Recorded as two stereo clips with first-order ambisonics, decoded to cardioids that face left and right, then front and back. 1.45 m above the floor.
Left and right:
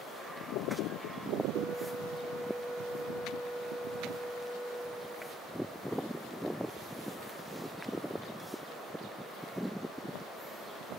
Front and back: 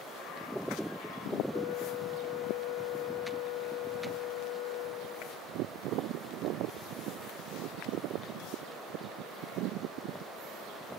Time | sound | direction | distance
1.5 | a flute | straight ahead | ?